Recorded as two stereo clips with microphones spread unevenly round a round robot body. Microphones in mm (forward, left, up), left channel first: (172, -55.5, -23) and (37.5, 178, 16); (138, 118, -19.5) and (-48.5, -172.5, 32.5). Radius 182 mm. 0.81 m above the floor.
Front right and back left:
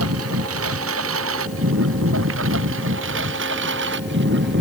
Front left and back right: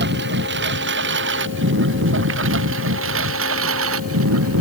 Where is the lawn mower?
175° left; by 4.6 s 175° right.